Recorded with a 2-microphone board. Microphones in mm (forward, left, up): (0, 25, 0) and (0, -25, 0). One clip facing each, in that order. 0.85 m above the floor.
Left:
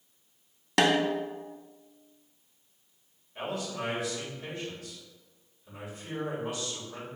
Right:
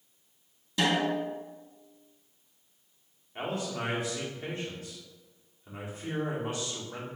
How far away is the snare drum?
About 0.6 m.